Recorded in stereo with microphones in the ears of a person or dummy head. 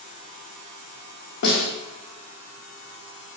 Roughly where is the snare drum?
Left.